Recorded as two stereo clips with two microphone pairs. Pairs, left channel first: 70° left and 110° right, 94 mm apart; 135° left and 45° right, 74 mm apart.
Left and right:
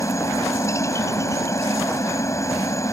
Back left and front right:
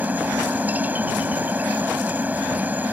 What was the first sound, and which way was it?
A helicopter, 20° left.